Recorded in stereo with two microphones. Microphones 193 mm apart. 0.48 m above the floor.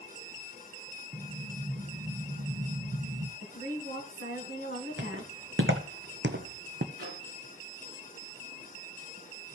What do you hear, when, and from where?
1.1 s an explosion: 35° right (ahead or behind), 0.8 m
3.4 s a woman speaking: 75° right (ahead or behind), 3.5 m
5.0 s footsteps: 70° right (ahead or behind), 1.7 m; by 6.8 s 50° right (ahead or behind), 1.0 m
6.9 s a microwave: 80° right, 8.5 m